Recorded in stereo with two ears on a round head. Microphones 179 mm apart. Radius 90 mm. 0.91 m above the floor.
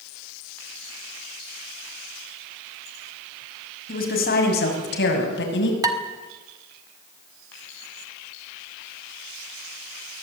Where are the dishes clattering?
20° right (ahead or behind), 1.9 m.